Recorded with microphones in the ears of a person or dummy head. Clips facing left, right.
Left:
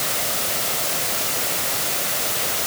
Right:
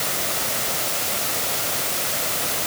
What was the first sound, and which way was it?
Only background noise.